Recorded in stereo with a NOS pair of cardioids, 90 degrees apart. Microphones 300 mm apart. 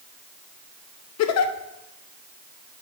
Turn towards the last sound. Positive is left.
turn(degrees=60)